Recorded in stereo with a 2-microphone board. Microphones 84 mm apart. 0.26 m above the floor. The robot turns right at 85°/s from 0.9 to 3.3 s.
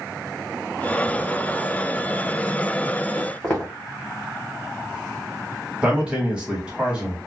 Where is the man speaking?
15° right (ahead or behind), 1.4 m.